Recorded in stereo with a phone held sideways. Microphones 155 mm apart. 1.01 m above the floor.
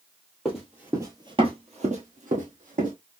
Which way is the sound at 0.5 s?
Centre (ahead or behind).